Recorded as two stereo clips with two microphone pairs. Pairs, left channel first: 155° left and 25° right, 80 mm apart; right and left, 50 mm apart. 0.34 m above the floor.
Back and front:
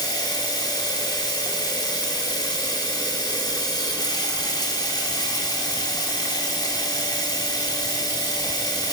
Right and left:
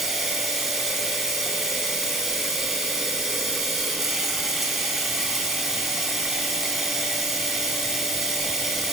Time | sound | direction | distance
0.0 | running water | 175° left | 1.6 m